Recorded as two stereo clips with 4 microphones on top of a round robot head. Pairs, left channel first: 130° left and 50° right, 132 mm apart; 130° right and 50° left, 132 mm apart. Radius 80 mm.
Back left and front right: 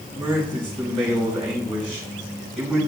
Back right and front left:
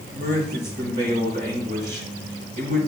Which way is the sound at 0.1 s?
45° left.